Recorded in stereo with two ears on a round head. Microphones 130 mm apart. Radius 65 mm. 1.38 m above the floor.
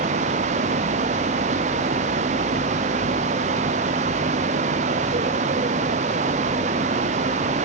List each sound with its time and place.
Only background noise.